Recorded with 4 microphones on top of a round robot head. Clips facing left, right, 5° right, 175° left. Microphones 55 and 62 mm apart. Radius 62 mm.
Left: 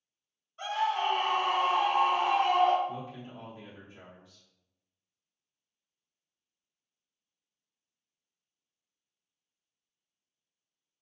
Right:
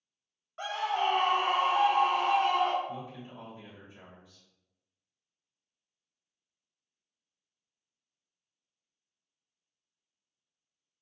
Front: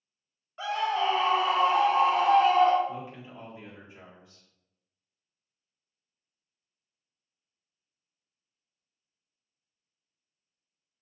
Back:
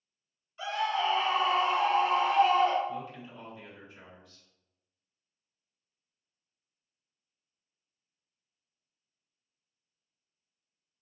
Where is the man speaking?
65° left, 1.0 m.